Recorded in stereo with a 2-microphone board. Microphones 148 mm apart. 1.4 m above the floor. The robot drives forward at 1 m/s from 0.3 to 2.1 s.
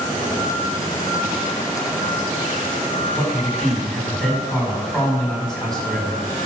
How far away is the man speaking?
About 5.5 m.